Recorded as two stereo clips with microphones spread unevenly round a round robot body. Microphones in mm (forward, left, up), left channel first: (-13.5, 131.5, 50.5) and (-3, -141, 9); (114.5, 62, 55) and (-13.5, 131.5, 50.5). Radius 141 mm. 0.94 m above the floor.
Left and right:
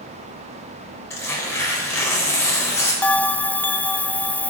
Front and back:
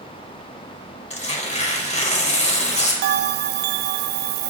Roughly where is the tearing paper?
Ahead.